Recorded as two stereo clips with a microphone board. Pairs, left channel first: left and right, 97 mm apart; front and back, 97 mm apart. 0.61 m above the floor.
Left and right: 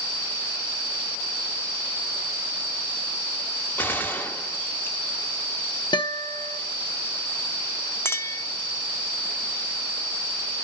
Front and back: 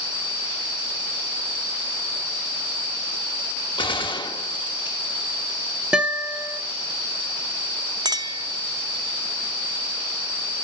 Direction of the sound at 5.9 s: 100° left.